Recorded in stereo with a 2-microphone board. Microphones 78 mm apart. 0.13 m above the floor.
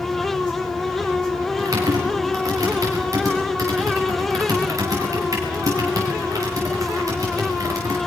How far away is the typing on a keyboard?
About 6.5 m.